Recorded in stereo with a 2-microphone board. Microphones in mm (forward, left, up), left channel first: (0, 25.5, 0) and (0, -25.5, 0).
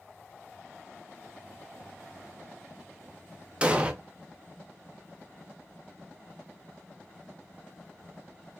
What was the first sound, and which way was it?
An explosion, 20° right (ahead or behind).